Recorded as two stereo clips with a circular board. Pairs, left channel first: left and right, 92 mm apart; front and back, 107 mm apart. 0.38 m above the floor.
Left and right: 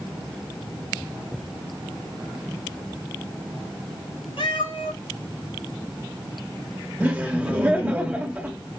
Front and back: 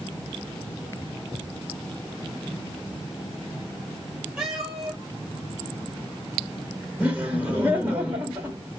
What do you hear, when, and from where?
4.4 s a cat meowing: 95° left, 2.5 m
7.0 s laughter: 125° right, 1.2 m